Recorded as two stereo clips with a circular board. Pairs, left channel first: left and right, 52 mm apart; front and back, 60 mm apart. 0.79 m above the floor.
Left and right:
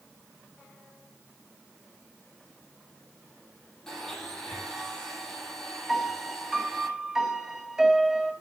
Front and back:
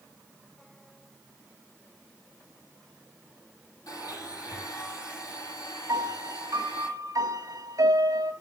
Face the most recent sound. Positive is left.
turn(degrees=-170)